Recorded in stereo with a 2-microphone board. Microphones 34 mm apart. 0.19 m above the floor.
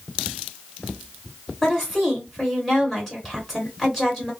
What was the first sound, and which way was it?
A woman speaking, 10° left (ahead or behind).